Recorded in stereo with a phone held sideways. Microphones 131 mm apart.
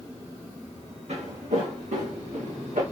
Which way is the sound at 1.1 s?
60° right (ahead or behind).